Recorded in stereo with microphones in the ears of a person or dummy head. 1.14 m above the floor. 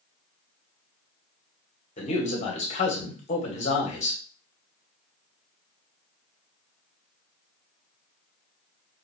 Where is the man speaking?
40° left (ahead or behind), 1.5 m.